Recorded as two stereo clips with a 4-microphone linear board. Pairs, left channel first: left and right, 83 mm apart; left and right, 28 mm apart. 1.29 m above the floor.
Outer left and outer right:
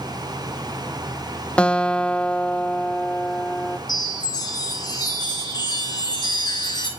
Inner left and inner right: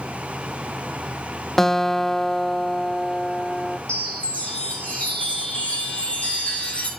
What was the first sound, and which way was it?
A guitar, 15° left (ahead or behind).